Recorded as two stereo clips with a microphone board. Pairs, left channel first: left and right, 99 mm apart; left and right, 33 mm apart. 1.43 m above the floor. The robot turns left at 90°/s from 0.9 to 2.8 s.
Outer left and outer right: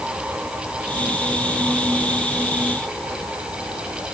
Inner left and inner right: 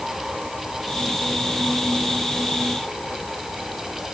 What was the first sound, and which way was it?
Only background noise.